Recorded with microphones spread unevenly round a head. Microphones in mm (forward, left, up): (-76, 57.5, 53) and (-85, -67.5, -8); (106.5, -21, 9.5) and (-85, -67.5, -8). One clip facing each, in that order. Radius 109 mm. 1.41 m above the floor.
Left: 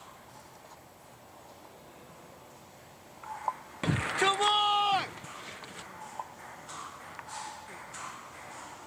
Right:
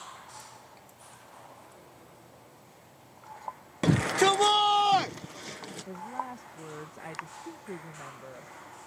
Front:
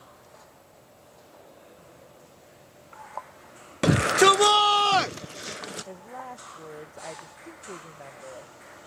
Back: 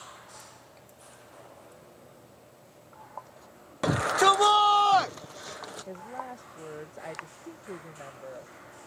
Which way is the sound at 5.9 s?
85° right.